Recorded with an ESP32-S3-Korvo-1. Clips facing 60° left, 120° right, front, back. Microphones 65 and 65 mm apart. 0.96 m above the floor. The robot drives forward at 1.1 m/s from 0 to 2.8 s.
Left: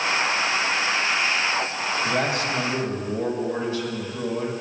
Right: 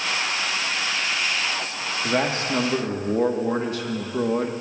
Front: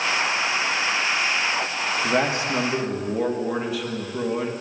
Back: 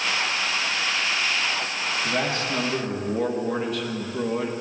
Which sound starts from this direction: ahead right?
A man speaking, at 2.0 s.